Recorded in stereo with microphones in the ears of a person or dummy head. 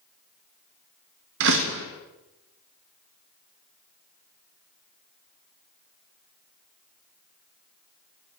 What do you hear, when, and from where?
1.4 s a door slam: 60° right (ahead or behind), 1.7 m